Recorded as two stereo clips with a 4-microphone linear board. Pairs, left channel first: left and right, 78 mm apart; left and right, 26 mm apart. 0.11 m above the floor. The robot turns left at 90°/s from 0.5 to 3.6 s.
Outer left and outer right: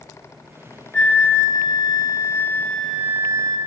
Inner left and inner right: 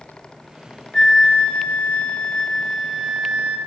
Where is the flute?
170° left, 0.7 m; by 3.6 s 70° right, 0.7 m.